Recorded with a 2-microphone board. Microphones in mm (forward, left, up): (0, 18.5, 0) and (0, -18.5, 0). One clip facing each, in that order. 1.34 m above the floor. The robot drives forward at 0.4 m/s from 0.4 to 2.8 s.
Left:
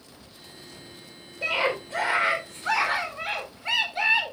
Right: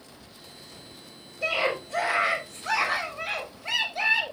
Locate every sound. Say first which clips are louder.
1.4 s a scream: left 1 dB; 35° left (ahead or behind), 4 m; by 4.3 s 40° left (ahead or behind), 3.5 m